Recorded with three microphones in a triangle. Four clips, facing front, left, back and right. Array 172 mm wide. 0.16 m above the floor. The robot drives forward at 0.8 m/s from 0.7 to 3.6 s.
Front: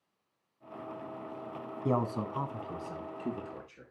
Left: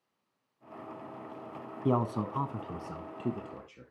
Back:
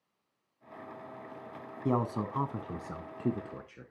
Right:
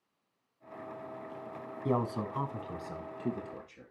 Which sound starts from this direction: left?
A man speaking, at 1.9 s.